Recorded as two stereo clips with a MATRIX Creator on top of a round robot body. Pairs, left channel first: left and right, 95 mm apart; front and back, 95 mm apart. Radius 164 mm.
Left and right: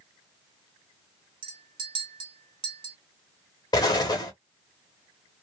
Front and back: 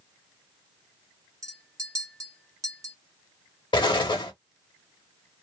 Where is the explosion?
40° left, 1.1 m.